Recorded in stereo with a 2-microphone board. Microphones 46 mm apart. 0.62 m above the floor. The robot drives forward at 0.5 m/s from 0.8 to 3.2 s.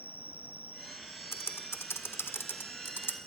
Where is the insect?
50° left (ahead or behind), 1.4 m; by 3.3 s 25° left (ahead or behind), 2.5 m.